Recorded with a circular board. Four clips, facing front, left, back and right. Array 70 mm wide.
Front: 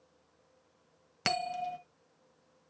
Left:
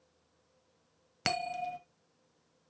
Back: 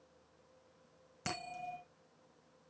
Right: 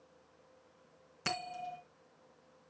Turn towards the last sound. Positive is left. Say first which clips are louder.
# left 6 dB, front 10 dB
turn(degrees=40)